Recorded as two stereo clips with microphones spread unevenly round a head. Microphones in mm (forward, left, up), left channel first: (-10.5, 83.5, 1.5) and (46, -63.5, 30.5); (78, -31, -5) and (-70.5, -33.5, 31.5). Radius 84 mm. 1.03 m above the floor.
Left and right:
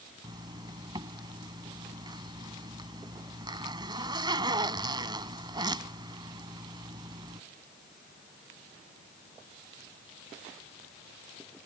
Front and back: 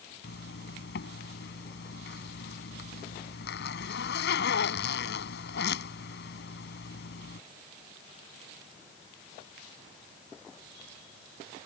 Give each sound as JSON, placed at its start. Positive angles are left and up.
{"t": 0.2, "sound": "a zipper", "azimuth_deg": -5}